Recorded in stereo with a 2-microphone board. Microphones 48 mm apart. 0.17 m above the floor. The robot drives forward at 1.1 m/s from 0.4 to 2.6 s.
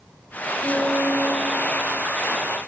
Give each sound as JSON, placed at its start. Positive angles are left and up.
{"t": 0.6, "sound": "a piano", "side_deg": 5, "distance_m": 2.0}